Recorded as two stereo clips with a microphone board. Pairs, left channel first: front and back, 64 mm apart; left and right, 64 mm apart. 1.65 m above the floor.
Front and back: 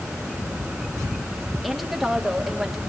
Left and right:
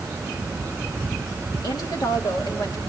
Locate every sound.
1.6 s a woman speaking: 90° left, 3 m